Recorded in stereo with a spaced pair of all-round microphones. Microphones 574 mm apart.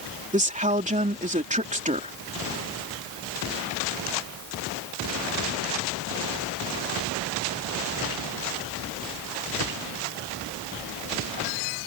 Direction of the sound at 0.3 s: 15° right (ahead or behind).